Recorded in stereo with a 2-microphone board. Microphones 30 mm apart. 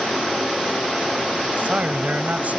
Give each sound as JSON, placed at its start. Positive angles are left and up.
{"t": 1.6, "sound": "a man speaking", "side_deg": -65}